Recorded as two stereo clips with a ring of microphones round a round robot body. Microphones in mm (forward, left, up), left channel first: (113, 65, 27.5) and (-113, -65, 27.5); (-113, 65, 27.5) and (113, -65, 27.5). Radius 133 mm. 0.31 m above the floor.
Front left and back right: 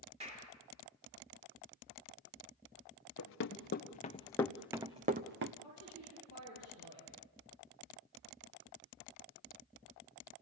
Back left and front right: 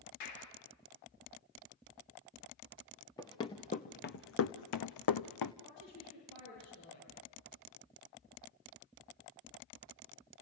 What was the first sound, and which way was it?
A clap, 145° left.